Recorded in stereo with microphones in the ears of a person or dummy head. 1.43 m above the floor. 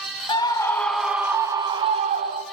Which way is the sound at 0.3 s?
20° left (ahead or behind).